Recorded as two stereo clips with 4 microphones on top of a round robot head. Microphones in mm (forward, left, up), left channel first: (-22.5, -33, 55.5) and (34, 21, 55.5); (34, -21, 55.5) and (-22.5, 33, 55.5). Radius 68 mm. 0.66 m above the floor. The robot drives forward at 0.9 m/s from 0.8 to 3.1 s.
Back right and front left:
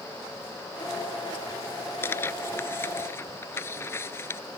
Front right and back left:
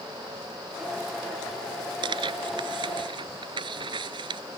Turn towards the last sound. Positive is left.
turn(degrees=160)